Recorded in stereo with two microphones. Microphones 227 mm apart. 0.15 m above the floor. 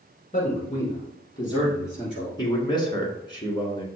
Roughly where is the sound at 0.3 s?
Left.